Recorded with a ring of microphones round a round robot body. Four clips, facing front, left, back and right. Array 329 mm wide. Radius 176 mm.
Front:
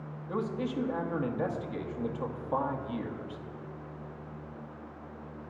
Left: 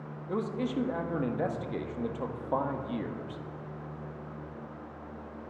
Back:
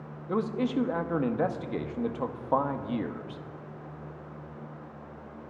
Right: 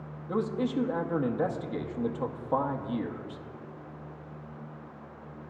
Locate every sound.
0.3 s a man speaking: 175° right, 1.0 m